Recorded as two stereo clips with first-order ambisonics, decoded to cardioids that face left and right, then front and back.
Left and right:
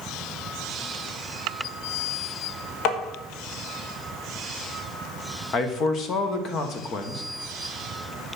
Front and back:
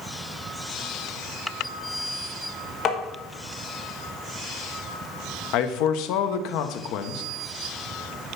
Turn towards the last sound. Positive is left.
turn(degrees=30)